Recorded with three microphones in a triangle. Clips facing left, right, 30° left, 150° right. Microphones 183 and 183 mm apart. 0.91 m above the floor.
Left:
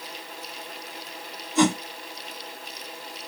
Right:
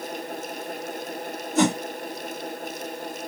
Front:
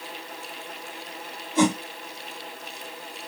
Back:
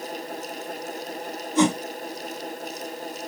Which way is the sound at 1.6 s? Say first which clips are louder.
Even, back 1 dB; 45° right.